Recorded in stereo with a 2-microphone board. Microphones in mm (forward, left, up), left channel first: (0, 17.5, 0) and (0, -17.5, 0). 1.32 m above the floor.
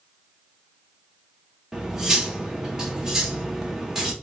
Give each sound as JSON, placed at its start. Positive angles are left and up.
{"t": 1.7, "sound": "cutlery clinking", "side_deg": -15, "distance_m": 0.8}